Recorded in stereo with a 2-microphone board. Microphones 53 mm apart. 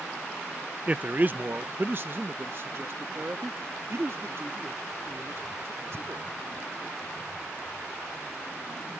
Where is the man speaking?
30° right (ahead or behind); by 6.2 s 60° right (ahead or behind).